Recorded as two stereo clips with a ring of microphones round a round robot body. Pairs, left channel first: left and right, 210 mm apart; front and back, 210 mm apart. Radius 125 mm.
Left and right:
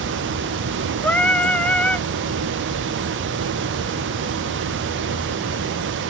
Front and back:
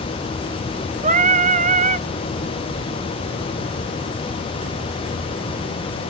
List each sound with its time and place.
1.0 s singing: 170° left, 0.7 m